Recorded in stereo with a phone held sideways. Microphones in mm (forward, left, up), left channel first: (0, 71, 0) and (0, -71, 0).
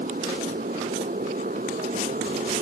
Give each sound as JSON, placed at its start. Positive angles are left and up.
{"t": 0.0, "sound": "a motorcycle", "side_deg": -85}